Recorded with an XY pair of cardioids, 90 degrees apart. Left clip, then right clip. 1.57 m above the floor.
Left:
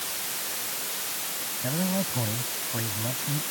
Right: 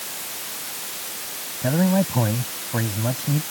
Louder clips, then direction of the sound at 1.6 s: Right 9 dB; 65° right.